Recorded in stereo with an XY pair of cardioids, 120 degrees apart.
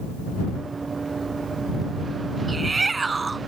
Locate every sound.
0.6 s running footsteps: 25° right
2.5 s a shout: 20° right